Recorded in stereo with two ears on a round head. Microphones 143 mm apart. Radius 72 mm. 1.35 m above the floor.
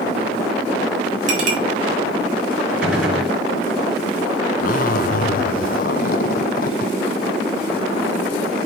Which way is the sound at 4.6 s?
55° left (ahead or behind).